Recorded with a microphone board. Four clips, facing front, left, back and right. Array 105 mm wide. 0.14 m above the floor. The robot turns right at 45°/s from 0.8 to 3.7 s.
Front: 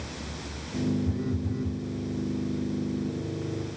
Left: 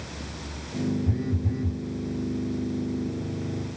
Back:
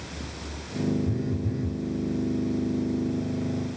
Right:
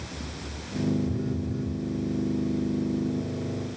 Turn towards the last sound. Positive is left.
turn(degrees=-155)